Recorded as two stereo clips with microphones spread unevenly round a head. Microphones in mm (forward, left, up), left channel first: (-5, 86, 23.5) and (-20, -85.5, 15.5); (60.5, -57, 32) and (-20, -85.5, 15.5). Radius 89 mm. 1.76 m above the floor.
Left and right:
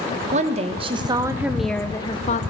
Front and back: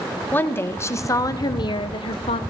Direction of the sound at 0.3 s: 45° right.